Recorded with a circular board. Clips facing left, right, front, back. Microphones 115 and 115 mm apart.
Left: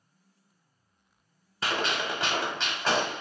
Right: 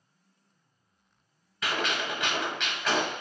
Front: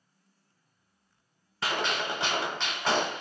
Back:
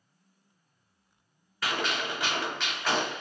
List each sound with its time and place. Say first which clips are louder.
1.6 s a gunshot: left 1 dB, front 1 dB; 50° left, 0.8 m